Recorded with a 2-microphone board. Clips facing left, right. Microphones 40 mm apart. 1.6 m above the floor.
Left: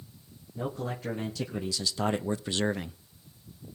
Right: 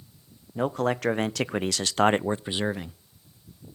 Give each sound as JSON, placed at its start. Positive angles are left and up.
{"t": 0.6, "sound": "a man speaking", "side_deg": -75, "distance_m": 1.3}